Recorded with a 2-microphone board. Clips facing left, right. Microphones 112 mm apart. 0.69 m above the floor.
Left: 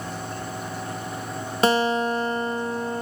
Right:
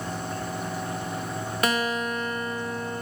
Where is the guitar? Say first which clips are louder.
Left 7 dB; 30° left (ahead or behind), 0.6 m.